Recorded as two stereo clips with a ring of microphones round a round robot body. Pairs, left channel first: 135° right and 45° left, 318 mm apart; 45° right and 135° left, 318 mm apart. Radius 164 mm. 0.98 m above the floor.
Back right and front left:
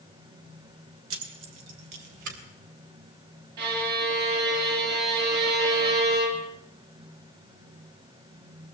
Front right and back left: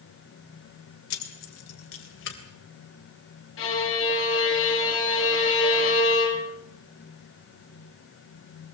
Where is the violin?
10° left, 4 m.